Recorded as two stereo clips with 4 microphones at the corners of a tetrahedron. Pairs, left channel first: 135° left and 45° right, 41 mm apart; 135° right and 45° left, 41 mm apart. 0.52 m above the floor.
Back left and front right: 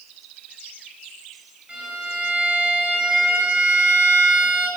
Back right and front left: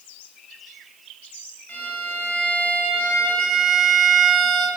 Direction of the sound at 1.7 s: 100° right.